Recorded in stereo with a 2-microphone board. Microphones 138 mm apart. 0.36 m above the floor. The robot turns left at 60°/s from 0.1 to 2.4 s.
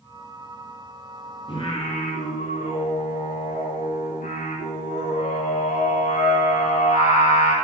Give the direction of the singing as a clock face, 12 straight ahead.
7 o'clock.